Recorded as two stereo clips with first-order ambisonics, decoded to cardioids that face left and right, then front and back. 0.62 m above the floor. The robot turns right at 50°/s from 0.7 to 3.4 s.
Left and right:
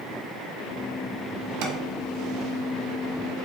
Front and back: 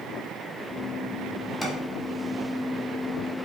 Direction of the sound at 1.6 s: 80° right.